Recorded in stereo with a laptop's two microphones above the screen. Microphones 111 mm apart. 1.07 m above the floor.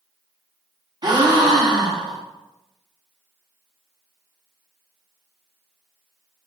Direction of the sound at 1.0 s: 40° right (ahead or behind).